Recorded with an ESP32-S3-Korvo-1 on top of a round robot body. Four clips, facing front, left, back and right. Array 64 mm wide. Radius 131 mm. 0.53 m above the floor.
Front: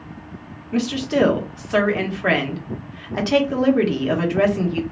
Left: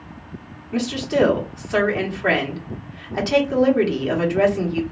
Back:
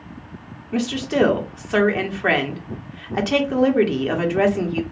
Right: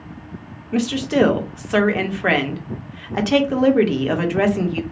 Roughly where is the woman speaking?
Right.